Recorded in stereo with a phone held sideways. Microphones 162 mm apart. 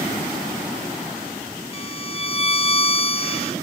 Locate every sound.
1.7 s a violin: 35° left (ahead or behind), 0.5 m